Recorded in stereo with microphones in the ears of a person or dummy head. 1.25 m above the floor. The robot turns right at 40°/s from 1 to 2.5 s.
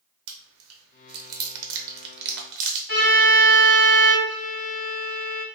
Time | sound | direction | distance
0.3 | chewing | 75° right (ahead or behind) | 0.8 m
2.9 | a violin | 60° left (ahead or behind) | 1.6 m
4.2 | a violin | 50° left (ahead or behind) | 0.7 m